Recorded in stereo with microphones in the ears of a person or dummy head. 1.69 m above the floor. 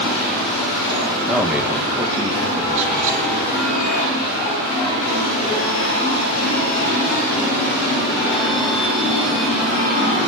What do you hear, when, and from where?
1.3 s a man speaking: 5° left (ahead or behind), 2.5 m; by 3.3 s 40° right (ahead or behind), 3.5 m